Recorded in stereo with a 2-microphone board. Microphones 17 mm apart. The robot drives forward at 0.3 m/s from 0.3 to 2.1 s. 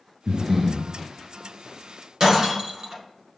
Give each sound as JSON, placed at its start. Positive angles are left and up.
{"t": 0.3, "sound": "breathing", "side_deg": -15, "distance_m": 0.7}
{"t": 2.2, "sound": "breaking glass", "side_deg": -50, "distance_m": 1.2}